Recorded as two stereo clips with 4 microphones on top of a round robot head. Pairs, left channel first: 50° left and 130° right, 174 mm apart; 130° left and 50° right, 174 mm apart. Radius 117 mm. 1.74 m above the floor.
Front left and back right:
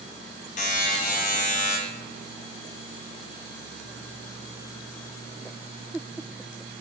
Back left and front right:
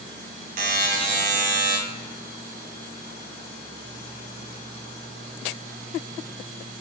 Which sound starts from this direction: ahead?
A buzzer, at 0.6 s.